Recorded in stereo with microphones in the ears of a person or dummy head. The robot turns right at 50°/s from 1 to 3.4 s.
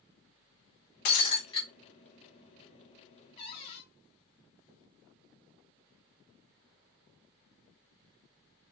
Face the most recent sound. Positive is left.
turn(degrees=25)  # may be behind; listen again after turning